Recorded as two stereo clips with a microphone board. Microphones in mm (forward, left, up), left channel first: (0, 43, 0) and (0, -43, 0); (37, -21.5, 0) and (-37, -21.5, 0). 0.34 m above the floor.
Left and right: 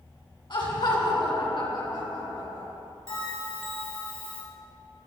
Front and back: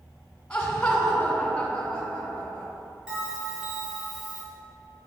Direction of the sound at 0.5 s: 75° left.